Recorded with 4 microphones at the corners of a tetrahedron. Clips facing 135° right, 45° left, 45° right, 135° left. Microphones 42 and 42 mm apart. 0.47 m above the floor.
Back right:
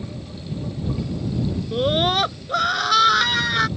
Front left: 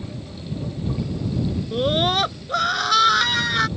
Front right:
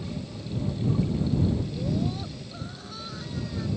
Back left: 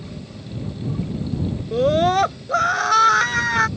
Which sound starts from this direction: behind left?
A scream, at 1.7 s.